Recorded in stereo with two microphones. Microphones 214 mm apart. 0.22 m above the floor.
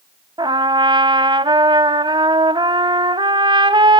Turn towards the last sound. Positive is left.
turn(degrees=-20)  # may be behind; listen again after turning